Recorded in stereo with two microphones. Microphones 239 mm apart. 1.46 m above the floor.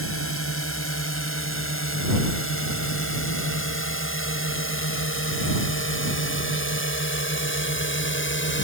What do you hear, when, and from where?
0.0 s a drone: 70° left (ahead or behind); by 8.6 s 60° left (ahead or behind)